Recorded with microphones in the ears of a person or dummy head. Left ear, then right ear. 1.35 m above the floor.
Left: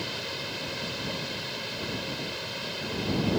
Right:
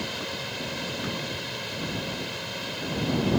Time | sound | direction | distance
0.0 | a machine running | centre (ahead or behind) | ?